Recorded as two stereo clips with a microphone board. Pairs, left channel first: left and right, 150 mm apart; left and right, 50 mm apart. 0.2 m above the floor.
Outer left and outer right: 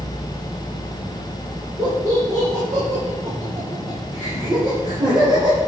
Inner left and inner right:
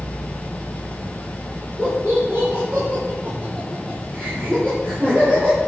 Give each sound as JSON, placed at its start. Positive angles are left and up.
{"t": 1.8, "sound": "laughter", "side_deg": -55, "distance_m": 5.0}